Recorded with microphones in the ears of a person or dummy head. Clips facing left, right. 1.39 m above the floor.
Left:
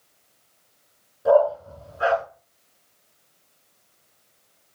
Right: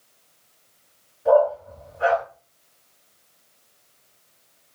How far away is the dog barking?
About 5.5 m.